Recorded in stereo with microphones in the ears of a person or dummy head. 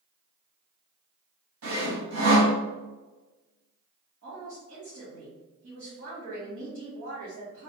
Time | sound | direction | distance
1.6 | sawing | 60° right (ahead or behind) | 2.0 m
4.2 | a woman speaking | 85° right | 1.9 m